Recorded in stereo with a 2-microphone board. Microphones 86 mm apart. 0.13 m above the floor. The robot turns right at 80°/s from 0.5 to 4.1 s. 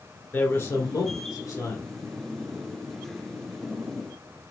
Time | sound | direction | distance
0.3 | a man speaking | 35° left | 1.9 m